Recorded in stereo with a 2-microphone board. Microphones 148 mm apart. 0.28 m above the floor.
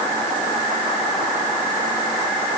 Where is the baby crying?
No baby crying in this recording.